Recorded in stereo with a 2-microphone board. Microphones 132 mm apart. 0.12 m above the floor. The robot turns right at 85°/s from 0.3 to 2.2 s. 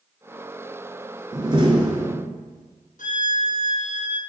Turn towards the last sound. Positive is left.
turn(degrees=80)